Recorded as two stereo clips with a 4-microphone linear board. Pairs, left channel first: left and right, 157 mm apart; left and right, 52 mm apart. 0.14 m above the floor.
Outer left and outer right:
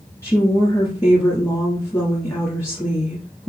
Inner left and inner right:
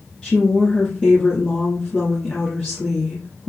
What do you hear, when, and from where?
0.2 s a woman speaking: 20° left (ahead or behind), 1.5 m